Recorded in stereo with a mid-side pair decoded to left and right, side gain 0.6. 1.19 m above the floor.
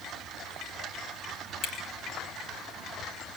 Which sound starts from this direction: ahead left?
A camera shutter, at 1.6 s.